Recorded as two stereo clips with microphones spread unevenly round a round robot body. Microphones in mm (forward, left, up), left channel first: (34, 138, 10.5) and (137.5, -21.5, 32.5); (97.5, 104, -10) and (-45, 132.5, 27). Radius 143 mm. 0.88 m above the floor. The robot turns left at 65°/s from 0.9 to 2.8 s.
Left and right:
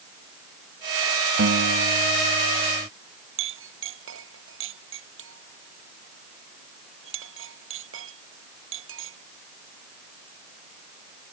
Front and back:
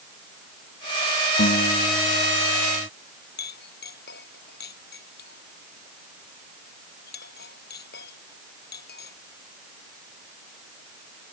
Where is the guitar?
40° right; by 2.9 s 130° right.